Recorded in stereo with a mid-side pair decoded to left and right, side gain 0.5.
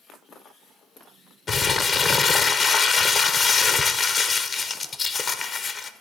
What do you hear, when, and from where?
1.5 s crumpling: 40° left, 0.5 m